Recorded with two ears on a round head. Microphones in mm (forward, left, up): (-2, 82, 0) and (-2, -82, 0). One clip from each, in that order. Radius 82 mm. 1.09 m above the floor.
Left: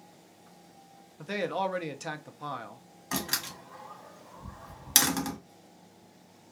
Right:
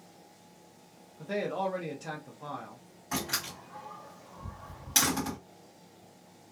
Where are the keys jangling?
I don't hear keys jangling.